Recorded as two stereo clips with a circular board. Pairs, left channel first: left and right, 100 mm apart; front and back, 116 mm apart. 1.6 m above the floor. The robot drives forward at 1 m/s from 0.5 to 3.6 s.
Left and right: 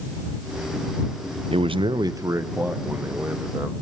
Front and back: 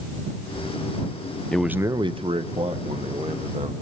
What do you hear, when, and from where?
1.5 s a man speaking: 80° right, 0.5 m; by 3.7 s 165° right, 2 m